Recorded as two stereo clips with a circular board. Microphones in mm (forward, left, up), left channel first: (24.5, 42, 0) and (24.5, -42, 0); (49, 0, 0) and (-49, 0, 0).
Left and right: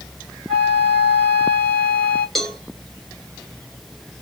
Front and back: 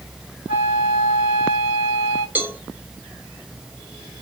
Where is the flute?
Straight behind, 3 m.